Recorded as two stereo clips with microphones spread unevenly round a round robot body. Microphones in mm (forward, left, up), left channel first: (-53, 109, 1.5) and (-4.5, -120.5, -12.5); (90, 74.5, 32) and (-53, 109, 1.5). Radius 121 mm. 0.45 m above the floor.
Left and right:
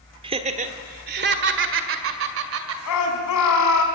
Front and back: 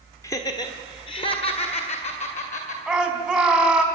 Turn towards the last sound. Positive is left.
turn(degrees=85)